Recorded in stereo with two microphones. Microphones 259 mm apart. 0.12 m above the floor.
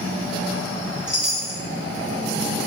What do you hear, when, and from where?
1.1 s a chime: 45° right (ahead or behind), 0.5 m